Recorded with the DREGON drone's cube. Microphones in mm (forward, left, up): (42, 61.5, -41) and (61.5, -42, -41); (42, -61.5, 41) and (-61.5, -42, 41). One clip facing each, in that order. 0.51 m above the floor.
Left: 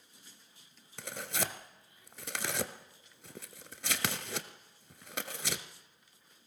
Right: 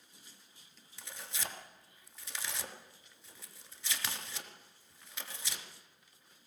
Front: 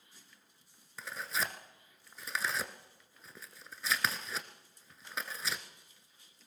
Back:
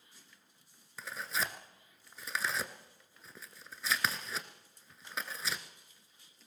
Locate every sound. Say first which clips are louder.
1.0 s tearing paper: left 8 dB, even; 80° left, 1.1 m